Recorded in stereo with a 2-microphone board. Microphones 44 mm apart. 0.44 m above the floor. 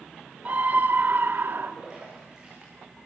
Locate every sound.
0.5 s a scream: 40° right (ahead or behind), 1.0 m; by 1.7 s 60° right (ahead or behind), 1.5 m
1.8 s a splash: 15° right (ahead or behind), 7.5 m